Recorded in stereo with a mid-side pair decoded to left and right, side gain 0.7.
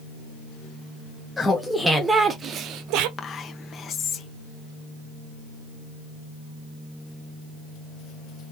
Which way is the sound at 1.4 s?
10° left.